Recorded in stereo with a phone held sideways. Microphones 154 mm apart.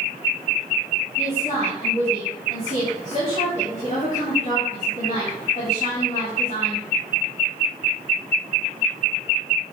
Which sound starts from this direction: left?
A woman speaking, at 1.2 s.